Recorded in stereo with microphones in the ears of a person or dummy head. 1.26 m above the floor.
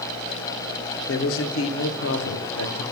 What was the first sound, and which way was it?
A man speaking, 65° left (ahead or behind).